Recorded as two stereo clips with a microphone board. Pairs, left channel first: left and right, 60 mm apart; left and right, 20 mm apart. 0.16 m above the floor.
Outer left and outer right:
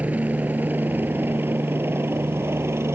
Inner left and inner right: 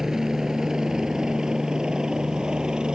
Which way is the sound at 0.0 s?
25° right (ahead or behind).